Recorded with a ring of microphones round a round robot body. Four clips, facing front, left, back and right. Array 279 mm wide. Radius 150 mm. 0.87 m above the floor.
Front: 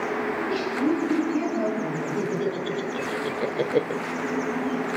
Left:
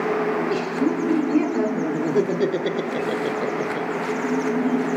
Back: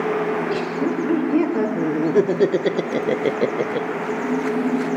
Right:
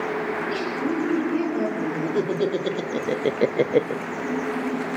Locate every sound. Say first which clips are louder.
0.3 s laughter: left 4 dB, back 4 dB; 160° left, 4.5 m; by 4.0 s 55° right, 0.9 m